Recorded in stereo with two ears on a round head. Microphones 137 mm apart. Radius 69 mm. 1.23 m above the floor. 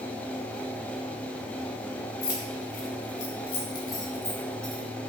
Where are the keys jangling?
75° left (ahead or behind), 1.4 m; by 4.8 s 5° left (ahead or behind), 1.7 m.